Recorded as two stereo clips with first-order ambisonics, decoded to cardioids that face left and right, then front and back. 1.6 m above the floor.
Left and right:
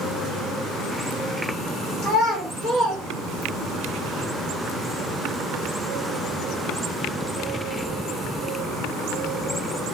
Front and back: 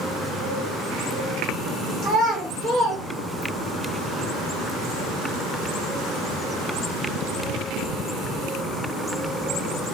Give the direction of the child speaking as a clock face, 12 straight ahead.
8 o'clock.